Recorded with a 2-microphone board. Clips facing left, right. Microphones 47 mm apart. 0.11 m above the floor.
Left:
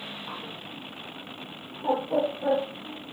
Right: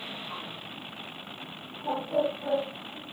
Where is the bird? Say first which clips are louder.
Left 1 dB; 35° left (ahead or behind), 6 m.